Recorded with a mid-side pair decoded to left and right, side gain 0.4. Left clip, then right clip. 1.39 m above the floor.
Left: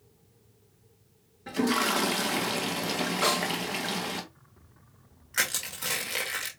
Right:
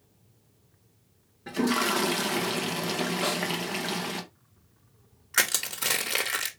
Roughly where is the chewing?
No chewing in this recording.